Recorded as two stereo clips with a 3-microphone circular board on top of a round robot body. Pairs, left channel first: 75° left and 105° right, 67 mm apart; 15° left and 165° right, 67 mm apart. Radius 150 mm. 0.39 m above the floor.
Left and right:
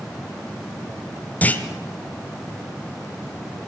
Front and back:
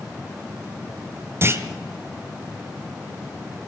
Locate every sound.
1.4 s a clunk: 140° left, 1.8 m